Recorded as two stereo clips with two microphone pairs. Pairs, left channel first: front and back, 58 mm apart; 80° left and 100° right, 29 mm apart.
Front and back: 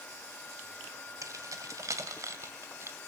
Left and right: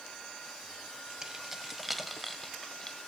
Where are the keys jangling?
170° right, 2 m; by 3.0 s 145° left, 1.6 m.